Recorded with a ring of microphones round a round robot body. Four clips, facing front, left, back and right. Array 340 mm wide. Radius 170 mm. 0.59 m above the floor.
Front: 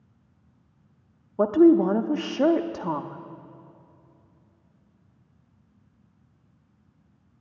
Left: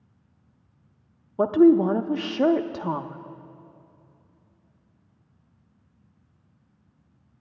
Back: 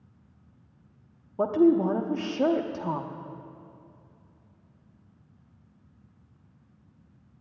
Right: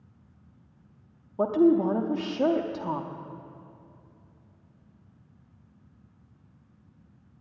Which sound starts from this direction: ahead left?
A woman speaking, at 1.4 s.